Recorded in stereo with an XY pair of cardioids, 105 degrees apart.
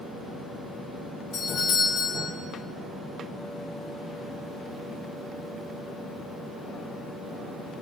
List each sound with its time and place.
1.3 s a doorbell: 70° left, 5 m